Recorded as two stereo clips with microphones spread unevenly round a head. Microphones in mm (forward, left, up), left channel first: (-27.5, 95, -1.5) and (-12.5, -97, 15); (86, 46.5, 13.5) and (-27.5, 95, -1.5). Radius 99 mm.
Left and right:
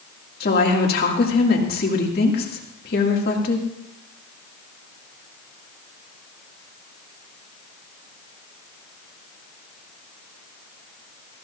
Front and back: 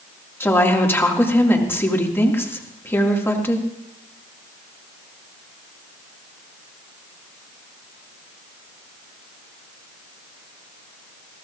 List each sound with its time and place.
0.4 s a woman speaking: 50° left, 2 m